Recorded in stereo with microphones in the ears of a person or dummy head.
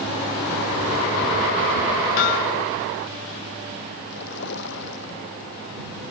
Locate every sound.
2.2 s hammering: 55° left (ahead or behind)
4.1 s a splash: 65° left (ahead or behind)